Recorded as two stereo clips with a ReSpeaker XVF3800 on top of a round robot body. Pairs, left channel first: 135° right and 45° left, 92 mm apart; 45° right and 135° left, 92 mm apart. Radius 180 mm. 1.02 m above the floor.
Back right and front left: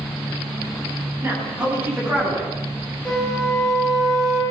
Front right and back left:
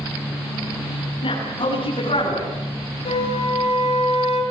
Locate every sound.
1.2 s a man speaking: 20° right, 10 m; by 2.5 s 25° right, 11 m
3.0 s a flute: 50° right, 6.5 m